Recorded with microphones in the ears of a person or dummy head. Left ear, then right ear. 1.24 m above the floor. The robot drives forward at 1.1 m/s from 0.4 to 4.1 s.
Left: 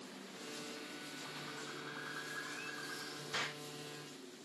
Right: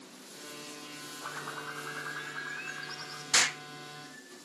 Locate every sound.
1.2 s a bird: 50° right (ahead or behind), 0.8 m; by 3.2 s 15° right (ahead or behind), 2.5 m
3.3 s an explosion: 65° right (ahead or behind), 0.7 m; by 3.6 s 50° right (ahead or behind), 0.8 m